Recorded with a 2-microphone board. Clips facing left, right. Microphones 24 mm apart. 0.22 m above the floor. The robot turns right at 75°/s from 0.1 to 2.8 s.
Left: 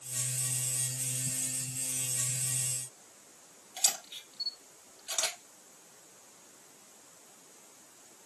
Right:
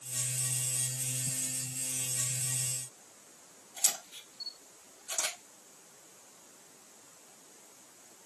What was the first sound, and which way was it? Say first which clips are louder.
A camera shutter: left 2 dB; 60° left (ahead or behind).